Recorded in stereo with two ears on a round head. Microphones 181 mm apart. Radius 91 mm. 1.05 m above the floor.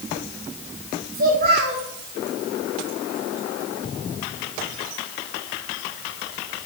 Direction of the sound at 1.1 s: 50° right (ahead or behind).